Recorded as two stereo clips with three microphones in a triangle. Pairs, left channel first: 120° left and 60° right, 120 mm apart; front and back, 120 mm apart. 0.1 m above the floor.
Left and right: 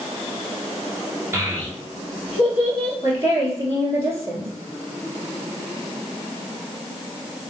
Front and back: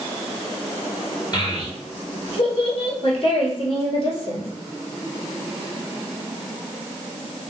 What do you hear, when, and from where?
1.3 s a child speaking: 10° right, 1.4 m; by 2.9 s 15° left, 2.0 m
3.0 s a woman speaking: straight ahead, 1.9 m